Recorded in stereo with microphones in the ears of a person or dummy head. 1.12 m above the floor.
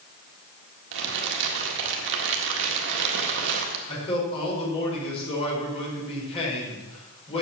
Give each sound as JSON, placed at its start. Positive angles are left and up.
{"t": 0.9, "sound": "crumpling", "side_deg": -60, "distance_m": 1.6}
{"t": 3.9, "sound": "a man speaking", "side_deg": 30, "distance_m": 4.5}